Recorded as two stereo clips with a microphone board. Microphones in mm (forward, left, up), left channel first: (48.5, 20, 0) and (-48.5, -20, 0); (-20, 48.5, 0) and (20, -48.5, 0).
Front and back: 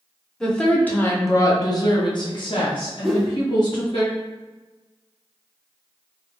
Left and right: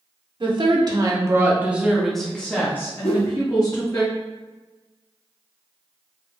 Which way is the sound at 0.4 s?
60° right.